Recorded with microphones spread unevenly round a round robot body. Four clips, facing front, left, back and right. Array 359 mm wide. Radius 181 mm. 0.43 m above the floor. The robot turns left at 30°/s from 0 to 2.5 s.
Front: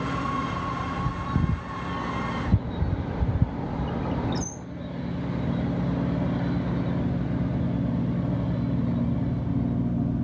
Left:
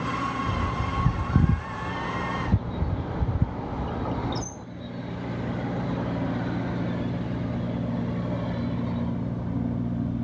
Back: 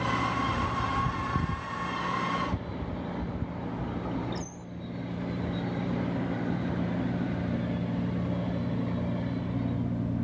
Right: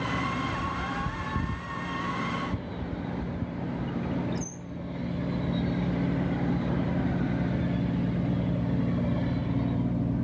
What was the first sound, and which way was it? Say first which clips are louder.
A bird: left 2 dB, even; 100° left.